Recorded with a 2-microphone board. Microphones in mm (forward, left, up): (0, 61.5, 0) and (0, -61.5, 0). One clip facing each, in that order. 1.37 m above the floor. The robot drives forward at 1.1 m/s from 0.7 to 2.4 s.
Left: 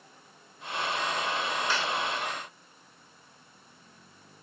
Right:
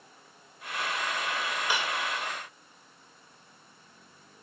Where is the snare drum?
15° right (ahead or behind).